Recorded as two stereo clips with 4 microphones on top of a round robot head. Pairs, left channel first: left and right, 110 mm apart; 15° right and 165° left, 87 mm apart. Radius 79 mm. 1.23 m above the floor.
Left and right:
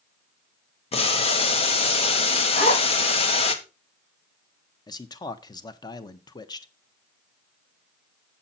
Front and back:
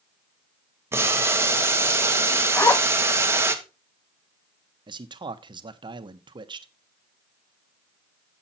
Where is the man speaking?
140° left, 0.9 m.